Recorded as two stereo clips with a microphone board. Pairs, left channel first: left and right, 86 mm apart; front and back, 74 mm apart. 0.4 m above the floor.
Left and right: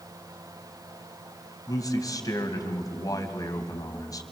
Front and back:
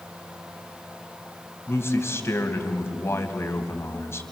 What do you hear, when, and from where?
1.7 s a man speaking: 50° left, 2.5 m